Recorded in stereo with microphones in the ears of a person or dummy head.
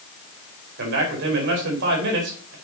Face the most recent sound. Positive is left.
turn(degrees=-65)  # may be behind; listen again after turning